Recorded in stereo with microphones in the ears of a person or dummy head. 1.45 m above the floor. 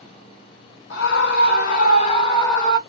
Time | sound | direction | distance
0.9 | a scream | 75° left (ahead or behind) | 1.1 m